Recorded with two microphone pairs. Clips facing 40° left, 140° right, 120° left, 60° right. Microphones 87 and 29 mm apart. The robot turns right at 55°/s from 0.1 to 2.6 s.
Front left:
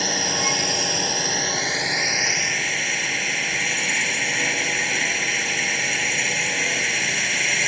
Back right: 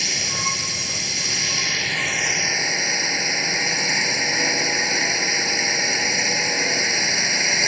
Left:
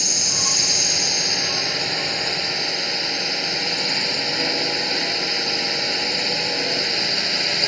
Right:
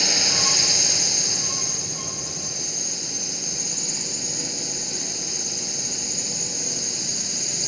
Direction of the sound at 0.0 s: 5° left.